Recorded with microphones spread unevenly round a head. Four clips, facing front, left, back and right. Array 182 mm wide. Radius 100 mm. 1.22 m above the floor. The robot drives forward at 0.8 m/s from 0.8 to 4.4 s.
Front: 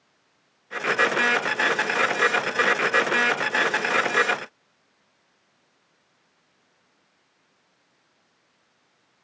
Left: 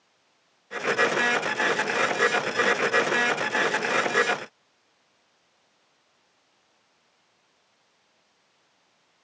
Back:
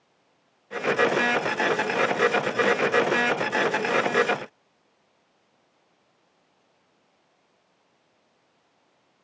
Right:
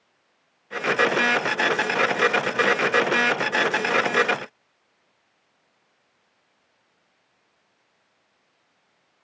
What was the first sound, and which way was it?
Only background noise.